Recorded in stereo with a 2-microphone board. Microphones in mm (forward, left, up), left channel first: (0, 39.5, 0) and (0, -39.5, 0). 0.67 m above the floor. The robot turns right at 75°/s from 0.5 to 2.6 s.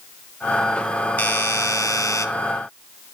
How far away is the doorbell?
About 1.3 m.